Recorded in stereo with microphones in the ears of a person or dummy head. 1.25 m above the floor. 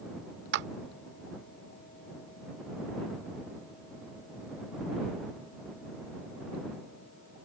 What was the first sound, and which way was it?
A clap, 65° right (ahead or behind).